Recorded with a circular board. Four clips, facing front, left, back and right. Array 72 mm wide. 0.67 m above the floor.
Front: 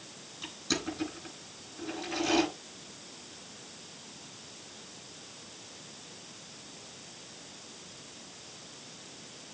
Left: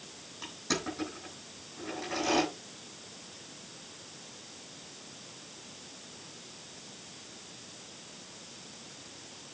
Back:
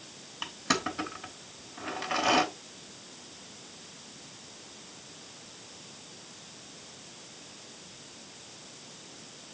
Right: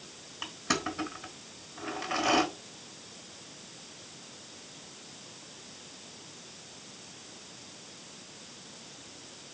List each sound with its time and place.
0.4 s crushing: 155° right, 3.5 m